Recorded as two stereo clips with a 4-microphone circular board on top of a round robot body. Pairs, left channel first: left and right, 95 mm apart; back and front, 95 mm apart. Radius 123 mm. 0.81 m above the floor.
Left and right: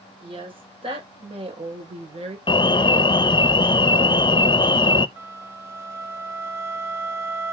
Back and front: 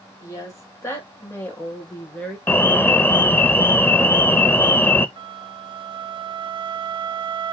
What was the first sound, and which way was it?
A woman speaking, 125° right.